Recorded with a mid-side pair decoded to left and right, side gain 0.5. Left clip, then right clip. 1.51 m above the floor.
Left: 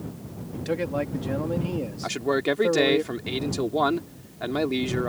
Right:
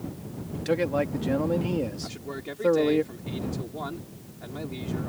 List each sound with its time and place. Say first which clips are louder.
0.5 s a man speaking: right 2 dB; 15° right
2.0 s a man speaking: left 12 dB; 70° left